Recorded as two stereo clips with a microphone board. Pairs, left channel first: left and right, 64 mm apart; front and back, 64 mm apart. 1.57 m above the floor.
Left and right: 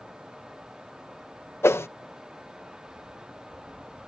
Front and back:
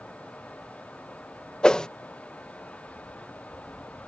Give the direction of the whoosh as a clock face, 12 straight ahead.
10 o'clock.